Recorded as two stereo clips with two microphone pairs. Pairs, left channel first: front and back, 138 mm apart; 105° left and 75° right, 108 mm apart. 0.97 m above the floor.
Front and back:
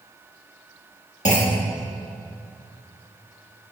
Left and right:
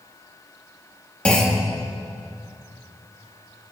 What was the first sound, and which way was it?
A clunk, 30° left.